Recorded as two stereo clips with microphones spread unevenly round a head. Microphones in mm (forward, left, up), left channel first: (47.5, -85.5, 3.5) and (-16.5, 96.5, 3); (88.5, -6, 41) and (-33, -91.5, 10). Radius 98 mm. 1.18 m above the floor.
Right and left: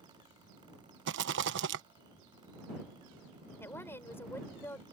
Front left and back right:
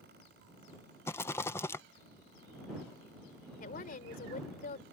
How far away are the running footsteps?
No running footsteps in this recording.